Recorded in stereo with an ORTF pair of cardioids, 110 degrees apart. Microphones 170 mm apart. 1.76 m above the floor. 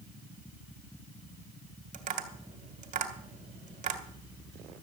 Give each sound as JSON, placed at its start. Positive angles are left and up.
{"t": 1.9, "sound": "tapping", "azimuth_deg": -45, "distance_m": 2.5}